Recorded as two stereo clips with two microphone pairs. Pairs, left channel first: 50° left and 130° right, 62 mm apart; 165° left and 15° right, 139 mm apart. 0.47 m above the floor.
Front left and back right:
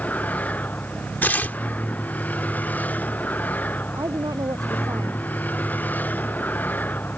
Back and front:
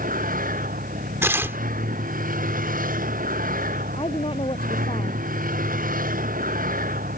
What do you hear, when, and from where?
0.0 s a vehicle: 15° right
1.2 s tearing paper: 40° left
3.9 s a woman speaking: 145° right